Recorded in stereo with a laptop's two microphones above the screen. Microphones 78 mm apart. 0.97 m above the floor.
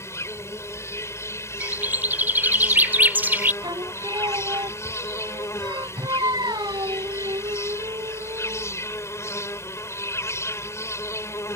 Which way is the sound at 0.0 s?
35° left (ahead or behind).